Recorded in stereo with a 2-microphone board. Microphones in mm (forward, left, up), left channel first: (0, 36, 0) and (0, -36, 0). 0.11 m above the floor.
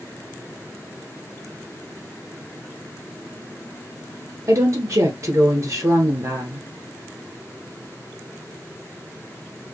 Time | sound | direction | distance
4.5 | a woman speaking | 45° right (ahead or behind) | 1.8 m